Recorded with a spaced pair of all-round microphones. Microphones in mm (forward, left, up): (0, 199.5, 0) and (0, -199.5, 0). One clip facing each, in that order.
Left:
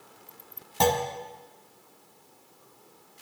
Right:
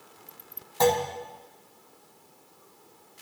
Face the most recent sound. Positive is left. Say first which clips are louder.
# right 3 dB
turn(degrees=45)  # may be behind; listen again after turning